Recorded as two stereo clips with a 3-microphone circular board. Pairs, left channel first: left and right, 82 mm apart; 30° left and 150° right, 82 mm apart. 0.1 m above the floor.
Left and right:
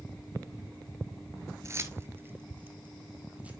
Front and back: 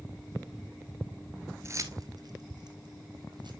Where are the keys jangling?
120° right, 1.0 m; by 3.5 s 165° right, 2 m.